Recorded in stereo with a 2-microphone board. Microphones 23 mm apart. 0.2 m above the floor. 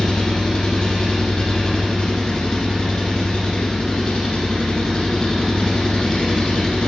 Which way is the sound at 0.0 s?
40° left (ahead or behind).